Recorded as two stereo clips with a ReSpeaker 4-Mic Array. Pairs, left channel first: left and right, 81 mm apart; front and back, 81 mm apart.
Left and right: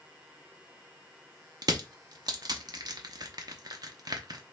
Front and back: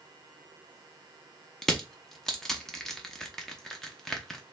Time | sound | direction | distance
1.6 | crushing | 80° right | 0.7 m